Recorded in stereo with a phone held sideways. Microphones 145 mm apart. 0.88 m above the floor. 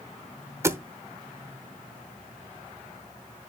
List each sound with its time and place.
0.6 s a thud: 20° right (ahead or behind), 0.9 m